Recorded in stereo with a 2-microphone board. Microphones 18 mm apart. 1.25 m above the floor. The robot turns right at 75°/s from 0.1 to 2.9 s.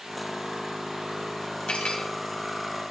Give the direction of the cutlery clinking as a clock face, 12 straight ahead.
9 o'clock.